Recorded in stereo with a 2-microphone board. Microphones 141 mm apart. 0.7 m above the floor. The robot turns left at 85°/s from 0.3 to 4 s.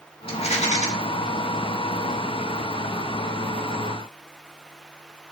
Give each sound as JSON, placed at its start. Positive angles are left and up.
{"t": 0.3, "sound": "a rattle", "azimuth_deg": 130, "distance_m": 1.5}